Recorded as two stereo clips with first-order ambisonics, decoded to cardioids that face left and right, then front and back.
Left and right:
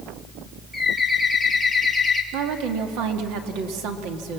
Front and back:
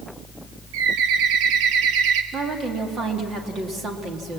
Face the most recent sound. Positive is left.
turn(degrees=-115)